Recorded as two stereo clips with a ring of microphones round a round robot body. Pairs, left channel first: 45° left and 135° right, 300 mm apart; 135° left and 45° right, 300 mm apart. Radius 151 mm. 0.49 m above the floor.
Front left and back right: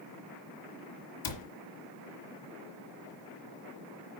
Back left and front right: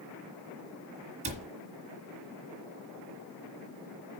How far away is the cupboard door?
About 2 m.